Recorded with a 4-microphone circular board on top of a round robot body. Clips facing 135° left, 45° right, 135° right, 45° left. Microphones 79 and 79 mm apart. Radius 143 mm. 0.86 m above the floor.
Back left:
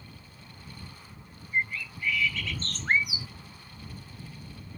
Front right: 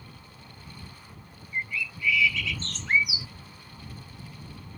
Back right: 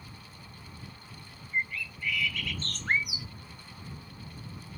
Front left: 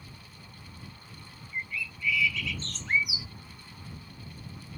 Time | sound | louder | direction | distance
1.5 | a bird | back left 2 dB, back right 3 dB | 175° right | ?